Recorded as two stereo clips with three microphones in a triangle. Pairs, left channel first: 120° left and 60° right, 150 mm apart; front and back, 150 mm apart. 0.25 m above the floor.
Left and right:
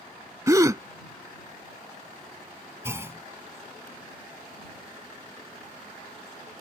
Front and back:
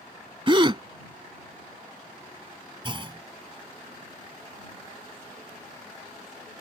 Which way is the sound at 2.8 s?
130° right.